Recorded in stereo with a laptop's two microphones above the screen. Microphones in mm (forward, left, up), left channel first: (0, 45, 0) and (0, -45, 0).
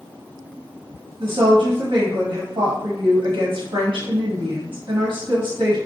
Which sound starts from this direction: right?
A woman speaking, at 1.2 s.